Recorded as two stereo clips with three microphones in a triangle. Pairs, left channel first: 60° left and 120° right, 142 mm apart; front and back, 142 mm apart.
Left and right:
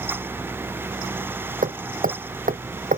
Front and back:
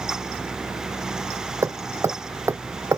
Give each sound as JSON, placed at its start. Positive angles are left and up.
{"t": 1.6, "sound": "hammering", "azimuth_deg": -110}